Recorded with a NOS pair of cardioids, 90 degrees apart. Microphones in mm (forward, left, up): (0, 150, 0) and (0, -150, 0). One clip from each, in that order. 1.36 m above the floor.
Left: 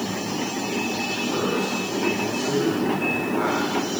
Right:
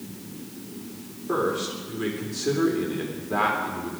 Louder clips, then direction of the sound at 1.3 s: Right 3 dB; 55° right.